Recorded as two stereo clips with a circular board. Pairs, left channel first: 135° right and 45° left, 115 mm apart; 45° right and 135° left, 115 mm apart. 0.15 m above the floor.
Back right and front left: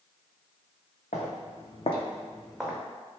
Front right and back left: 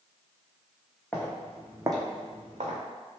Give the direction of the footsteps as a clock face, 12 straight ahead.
4 o'clock.